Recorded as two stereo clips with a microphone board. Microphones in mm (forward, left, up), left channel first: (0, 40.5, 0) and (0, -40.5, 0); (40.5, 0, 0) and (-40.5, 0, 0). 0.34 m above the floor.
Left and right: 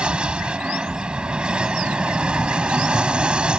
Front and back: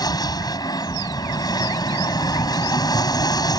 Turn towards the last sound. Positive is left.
turn(degrees=-15)